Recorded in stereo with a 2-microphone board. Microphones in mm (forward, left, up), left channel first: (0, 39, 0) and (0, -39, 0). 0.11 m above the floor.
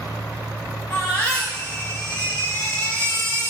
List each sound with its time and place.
0.9 s a baby crying: 25° left (ahead or behind), 6.5 m